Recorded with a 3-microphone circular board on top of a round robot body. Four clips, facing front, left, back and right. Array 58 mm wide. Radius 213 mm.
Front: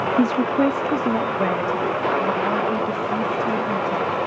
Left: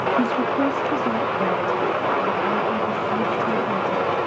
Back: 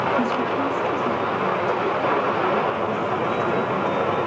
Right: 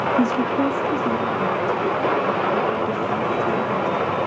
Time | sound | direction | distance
0.2 | a woman speaking | 15° right | 1.0 m